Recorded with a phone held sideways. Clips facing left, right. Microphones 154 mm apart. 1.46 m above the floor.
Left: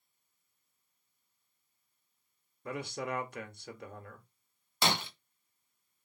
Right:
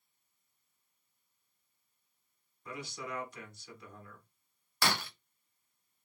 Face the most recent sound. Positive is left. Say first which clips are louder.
# left 2 dB
turn(degrees=20)  # may be behind; listen again after turning